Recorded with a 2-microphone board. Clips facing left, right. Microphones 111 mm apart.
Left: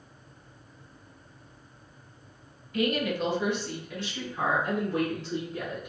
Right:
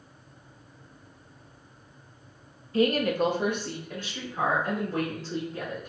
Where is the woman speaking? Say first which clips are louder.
Right 4 dB; 30° right (ahead or behind), 0.8 m; by 5.9 s 40° right (ahead or behind), 4 m.